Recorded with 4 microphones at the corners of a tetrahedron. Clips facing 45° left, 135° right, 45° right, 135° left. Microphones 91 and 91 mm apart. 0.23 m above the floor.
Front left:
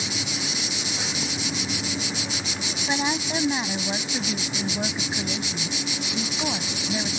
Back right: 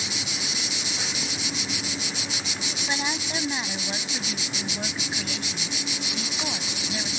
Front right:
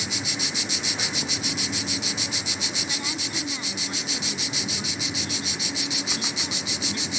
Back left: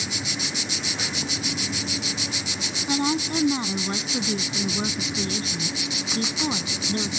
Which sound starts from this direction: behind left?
A woman speaking, at 2.9 s.